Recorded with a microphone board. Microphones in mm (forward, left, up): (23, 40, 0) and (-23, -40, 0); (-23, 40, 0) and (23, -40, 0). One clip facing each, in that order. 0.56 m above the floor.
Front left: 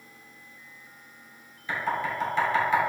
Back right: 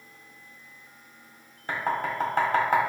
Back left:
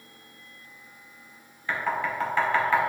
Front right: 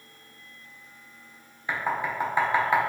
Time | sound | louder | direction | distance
1.7 | knocking | back right 1 dB, even | 130° right | 1.6 m